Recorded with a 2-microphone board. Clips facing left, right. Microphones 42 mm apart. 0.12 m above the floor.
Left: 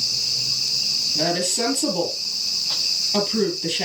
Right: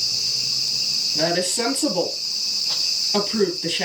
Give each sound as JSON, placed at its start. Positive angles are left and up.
{"t": 1.1, "sound": "a woman speaking", "side_deg": -25, "distance_m": 2.5}